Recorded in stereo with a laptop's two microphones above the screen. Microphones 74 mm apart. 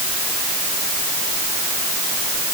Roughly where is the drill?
I don't hear a drill.